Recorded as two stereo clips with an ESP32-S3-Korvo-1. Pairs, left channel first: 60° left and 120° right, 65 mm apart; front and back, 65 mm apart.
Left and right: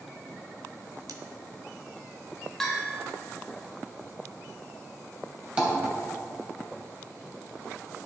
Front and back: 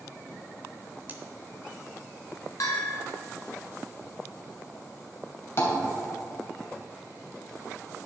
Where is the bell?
25° right, 1.3 m.